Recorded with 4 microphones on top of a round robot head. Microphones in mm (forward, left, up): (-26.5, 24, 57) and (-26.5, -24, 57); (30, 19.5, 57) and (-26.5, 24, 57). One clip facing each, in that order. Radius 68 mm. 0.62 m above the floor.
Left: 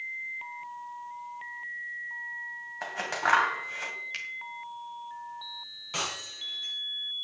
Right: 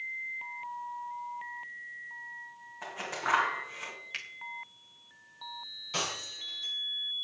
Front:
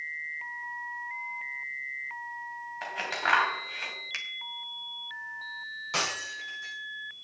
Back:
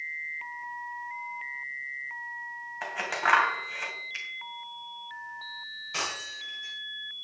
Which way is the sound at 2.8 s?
95° left.